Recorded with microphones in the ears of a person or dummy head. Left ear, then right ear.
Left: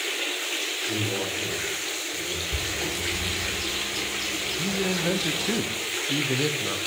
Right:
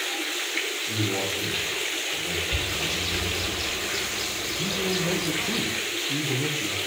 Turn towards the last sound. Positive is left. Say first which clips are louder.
# right 2 dB
turn(degrees=80)